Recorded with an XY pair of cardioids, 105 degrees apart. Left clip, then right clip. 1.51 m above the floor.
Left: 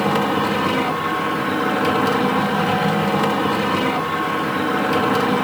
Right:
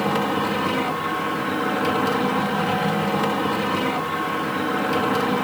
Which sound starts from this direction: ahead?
A machine running, at 0.0 s.